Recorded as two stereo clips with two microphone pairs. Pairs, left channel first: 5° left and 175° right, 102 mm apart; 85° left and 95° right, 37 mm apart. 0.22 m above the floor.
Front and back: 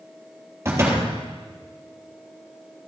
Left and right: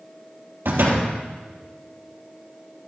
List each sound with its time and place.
0.7 s a door slam: 110° right, 3.5 m